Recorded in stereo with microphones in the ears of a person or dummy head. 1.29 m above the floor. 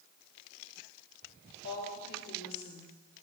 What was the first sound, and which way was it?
A woman speaking, 55° left (ahead or behind).